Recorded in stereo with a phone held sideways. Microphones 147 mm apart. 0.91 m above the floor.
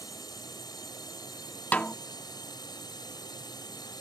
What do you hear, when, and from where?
0.0 s a drone: 25° left (ahead or behind)
1.7 s a snare drum: 10° left (ahead or behind)